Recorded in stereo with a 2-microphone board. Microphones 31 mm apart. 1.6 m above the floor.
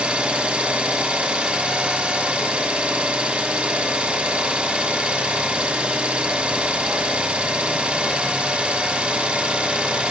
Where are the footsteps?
I don't hear footsteps.